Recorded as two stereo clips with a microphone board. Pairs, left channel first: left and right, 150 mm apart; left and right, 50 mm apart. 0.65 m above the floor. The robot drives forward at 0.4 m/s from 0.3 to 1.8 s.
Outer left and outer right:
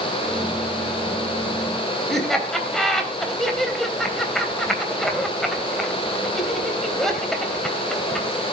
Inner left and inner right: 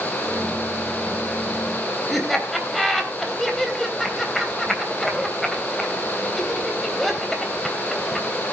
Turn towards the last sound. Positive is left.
turn(degrees=0)  # may be behind; listen again after turning